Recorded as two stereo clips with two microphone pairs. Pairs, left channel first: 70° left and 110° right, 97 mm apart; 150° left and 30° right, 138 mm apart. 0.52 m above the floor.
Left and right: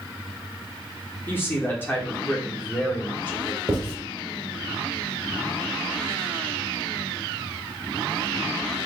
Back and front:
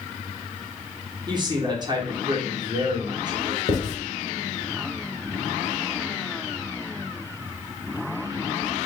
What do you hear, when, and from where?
1.3 s a man speaking: 10° left, 1.0 m
3.7 s writing: 170° right, 1.5 m